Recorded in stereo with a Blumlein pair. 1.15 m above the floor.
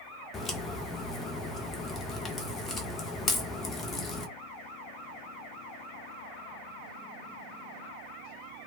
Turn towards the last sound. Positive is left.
turn(degrees=15)